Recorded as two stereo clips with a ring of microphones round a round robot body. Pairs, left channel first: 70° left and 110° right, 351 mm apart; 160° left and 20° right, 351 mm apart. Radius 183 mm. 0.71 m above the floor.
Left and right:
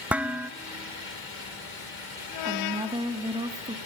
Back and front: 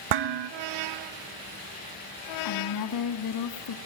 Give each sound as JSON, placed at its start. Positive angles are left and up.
{"t": 0.1, "sound": "dishes clattering", "azimuth_deg": -25, "distance_m": 0.9}
{"t": 2.5, "sound": "a woman speaking", "azimuth_deg": 170, "distance_m": 1.7}